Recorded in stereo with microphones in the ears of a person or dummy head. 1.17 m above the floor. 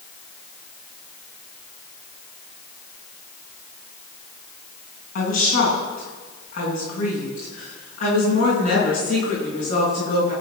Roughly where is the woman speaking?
Left.